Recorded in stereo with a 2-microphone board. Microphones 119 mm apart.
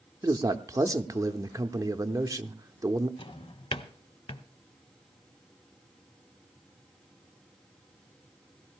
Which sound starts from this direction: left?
A drawer, at 3.2 s.